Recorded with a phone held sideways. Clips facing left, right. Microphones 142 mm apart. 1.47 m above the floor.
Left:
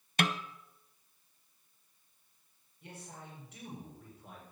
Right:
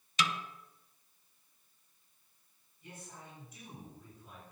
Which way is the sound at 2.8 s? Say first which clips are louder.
Left 2 dB; 70° left (ahead or behind).